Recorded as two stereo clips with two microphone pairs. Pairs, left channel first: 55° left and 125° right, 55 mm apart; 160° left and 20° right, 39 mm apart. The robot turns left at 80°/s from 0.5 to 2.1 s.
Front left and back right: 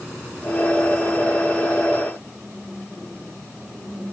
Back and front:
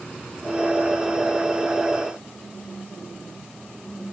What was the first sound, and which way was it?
Only background noise.